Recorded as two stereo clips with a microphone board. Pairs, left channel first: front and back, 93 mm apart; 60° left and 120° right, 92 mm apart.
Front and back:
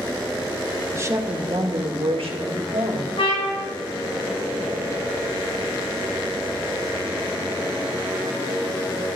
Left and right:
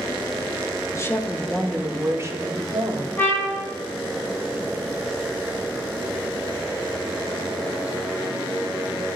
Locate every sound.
0.9 s a woman speaking: 115° left, 1.3 m; by 3.1 s 160° right, 2.5 m
3.2 s a trumpet: 10° right, 4 m